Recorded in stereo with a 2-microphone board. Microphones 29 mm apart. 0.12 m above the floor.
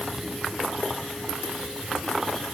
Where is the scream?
No scream in this recording.